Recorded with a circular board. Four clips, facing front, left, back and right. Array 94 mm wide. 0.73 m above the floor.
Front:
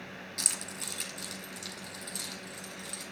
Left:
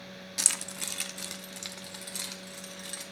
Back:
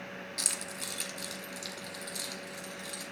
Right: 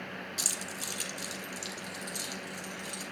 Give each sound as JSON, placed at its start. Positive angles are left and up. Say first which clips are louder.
{"t": 0.4, "sound": "keys jangling", "louder": "right 1 dB, back 1 dB", "azimuth_deg": 95, "distance_m": 1.0}